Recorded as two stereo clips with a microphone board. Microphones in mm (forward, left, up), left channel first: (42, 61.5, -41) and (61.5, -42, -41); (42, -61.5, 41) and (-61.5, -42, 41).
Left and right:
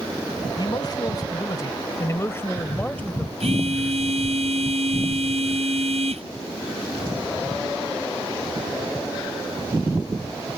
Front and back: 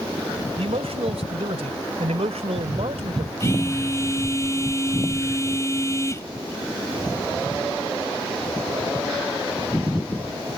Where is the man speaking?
145° left; by 3.3 s straight behind.